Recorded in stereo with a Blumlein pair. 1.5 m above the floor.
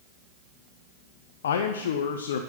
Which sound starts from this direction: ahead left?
A man speaking, at 1.4 s.